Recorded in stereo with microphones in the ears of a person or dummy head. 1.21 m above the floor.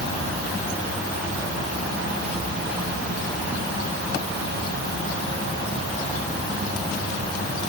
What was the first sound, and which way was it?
Only background noise.